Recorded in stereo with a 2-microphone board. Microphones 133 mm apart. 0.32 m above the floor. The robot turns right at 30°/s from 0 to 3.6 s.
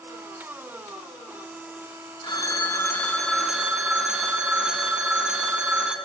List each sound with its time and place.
2.2 s a phone ringing: 145° left, 2 m; by 6.0 s 175° right, 2 m